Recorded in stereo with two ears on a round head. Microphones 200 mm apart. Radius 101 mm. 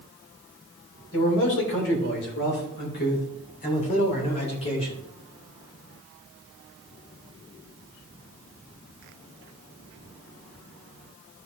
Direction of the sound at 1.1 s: 60° left (ahead or behind).